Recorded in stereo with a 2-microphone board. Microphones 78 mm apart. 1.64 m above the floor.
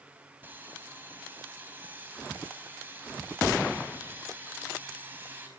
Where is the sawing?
25° right (ahead or behind), 4.5 m.